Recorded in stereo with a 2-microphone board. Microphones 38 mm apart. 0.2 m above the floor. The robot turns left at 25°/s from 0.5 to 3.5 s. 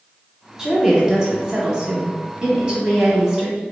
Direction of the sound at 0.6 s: 15° right (ahead or behind).